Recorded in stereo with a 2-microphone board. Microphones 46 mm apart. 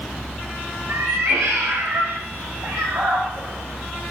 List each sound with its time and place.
0.9 s a cat meowing: 80° right, 9.5 m; by 4.1 s 75° right (ahead or behind), 12.5 m